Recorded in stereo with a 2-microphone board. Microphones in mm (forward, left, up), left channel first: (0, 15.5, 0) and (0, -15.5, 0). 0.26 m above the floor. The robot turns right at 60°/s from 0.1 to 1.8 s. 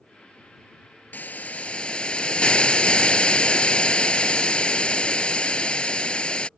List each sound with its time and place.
1.1 s a hiss: 100° left; by 6.5 s 140° left